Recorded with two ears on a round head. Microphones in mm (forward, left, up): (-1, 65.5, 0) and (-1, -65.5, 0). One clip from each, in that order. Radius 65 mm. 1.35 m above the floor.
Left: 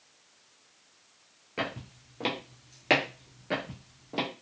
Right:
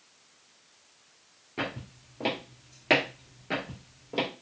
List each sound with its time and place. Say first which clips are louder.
1.6 s footsteps: even; 35° left (ahead or behind), 1.6 m; by 4.3 s 10° right (ahead or behind), 2.0 m